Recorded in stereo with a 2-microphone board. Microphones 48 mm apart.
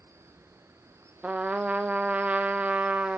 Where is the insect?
70° right (ahead or behind), 0.9 m.